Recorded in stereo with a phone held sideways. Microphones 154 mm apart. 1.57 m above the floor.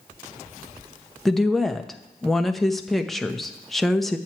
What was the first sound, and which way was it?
A woman speaking, centre (ahead or behind).